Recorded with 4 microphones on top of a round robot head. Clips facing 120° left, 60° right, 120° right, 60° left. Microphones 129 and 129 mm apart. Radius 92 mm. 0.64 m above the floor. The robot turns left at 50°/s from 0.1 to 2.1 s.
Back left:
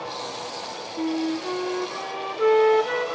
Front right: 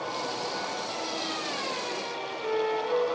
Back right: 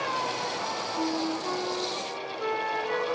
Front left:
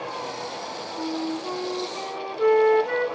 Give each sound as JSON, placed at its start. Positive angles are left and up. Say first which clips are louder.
{"t": 1.0, "sound": "a flute", "louder": "back left 9 dB, front left 1 dB", "azimuth_deg": 160, "distance_m": 1.4}